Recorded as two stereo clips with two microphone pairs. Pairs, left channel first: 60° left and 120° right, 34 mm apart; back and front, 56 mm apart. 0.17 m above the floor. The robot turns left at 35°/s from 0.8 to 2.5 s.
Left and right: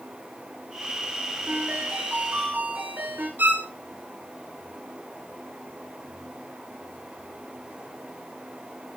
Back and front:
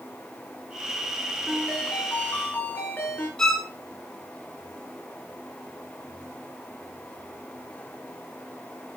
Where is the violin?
105° right, 2 m.